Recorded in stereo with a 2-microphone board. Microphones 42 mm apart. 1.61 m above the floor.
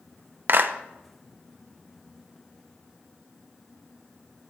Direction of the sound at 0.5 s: 60° right (ahead or behind).